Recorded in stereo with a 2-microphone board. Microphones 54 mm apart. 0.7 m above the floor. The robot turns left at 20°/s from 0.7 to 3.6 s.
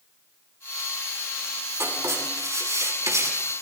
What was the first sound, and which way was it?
Writing, 65° right (ahead or behind).